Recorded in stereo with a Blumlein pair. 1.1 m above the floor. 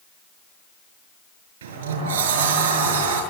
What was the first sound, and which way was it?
A sliding door, 60° right.